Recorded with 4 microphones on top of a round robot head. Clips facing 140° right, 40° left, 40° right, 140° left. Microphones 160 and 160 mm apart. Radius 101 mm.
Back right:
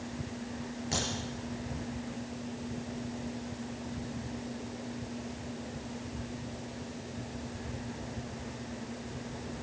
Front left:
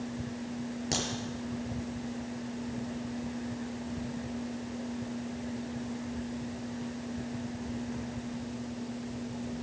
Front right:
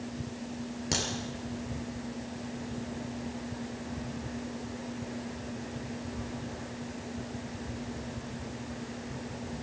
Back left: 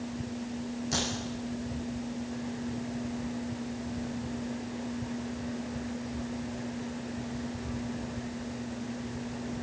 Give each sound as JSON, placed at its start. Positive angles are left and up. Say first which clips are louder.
{"t": 0.9, "sound": "a crack", "louder": "front left 1 dB, even", "azimuth_deg": -10, "distance_m": 4.0}